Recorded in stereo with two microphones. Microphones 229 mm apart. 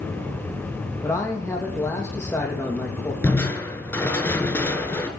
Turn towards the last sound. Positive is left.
turn(degrees=10)  # may be behind; listen again after turning